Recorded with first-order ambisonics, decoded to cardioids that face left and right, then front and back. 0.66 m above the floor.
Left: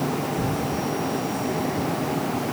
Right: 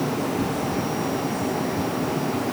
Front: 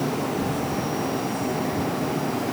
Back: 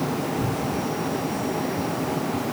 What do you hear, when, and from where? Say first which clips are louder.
0.4 s a cupboard door: right 1 dB, even; 110° left, 3 m